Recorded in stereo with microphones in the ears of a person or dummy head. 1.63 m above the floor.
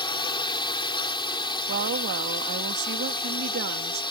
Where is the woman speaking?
55° right (ahead or behind).